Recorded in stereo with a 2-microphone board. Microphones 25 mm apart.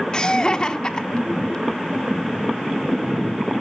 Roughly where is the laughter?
Left.